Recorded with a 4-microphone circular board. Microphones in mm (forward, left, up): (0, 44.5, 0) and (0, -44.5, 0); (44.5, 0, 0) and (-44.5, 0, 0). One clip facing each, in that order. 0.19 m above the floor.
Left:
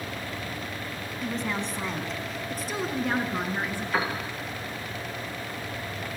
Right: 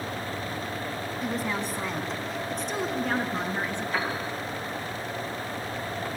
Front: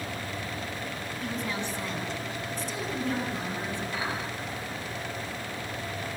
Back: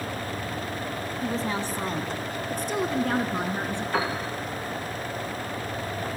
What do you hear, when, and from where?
1.2 s a woman speaking: 165° right, 1.7 m; by 3.8 s 170° left, 3 m
3.9 s a piano: 145° left, 4.5 m